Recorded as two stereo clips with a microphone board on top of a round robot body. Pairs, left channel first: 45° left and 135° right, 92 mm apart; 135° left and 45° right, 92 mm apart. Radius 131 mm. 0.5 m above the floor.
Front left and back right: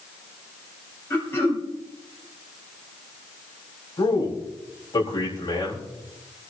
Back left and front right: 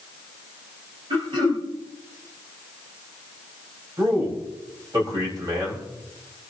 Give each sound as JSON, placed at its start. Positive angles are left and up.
{"t": 1.1, "sound": "throat clearing", "azimuth_deg": -20, "distance_m": 5.5}
{"t": 4.0, "sound": "a man speaking", "azimuth_deg": 0, "distance_m": 4.5}